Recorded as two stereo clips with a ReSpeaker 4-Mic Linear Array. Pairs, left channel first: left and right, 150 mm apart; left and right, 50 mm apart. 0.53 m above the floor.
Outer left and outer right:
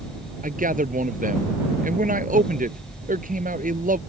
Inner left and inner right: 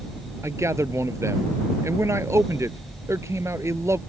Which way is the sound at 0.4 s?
65° right (ahead or behind).